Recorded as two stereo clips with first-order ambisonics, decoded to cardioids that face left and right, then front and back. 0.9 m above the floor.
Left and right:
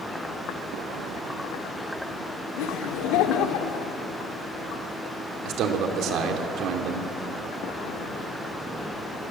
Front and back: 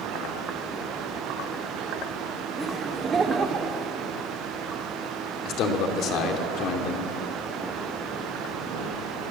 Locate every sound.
2.6 s laughter: 100° left, 1.8 m; by 3.9 s 120° left, 1.9 m
5.5 s a man speaking: 45° right, 2.5 m